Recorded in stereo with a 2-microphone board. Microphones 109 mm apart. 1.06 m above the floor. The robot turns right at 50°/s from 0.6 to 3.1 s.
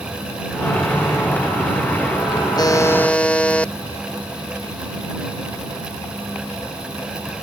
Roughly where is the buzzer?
Left.